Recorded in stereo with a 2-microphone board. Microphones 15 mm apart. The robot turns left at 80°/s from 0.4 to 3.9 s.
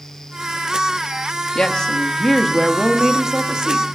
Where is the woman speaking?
90° left, 1.0 m; by 3.9 s 95° right, 1.0 m.